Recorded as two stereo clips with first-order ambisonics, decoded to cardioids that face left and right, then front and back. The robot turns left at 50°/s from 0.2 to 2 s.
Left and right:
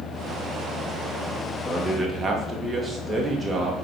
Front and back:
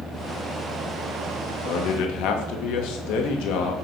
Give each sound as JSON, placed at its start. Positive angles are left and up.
{"t": 1.6, "sound": "a man speaking", "azimuth_deg": 5, "distance_m": 0.8}